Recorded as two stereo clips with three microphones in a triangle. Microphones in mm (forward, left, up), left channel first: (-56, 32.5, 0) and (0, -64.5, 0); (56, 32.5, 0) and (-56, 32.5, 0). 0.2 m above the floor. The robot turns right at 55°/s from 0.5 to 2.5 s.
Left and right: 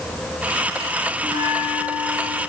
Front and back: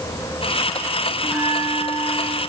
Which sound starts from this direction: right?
A bell, at 1.2 s.